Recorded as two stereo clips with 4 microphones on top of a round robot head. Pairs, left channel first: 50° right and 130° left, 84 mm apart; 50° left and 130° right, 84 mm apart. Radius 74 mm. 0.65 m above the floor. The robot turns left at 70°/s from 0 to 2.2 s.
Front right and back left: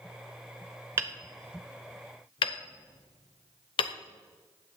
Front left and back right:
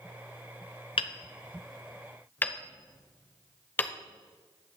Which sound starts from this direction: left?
Hammering, at 1.0 s.